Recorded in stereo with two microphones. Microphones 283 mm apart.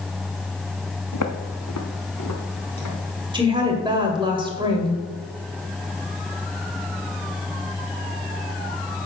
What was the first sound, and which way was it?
Footsteps, 75° left (ahead or behind).